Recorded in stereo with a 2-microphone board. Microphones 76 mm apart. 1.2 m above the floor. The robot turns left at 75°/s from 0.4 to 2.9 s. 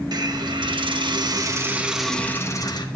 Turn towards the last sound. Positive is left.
turn(degrees=115)